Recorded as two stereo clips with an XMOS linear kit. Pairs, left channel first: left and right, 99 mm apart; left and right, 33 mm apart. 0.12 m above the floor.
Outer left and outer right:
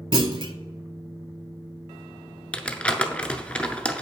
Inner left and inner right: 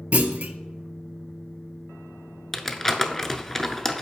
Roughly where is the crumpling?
Centre.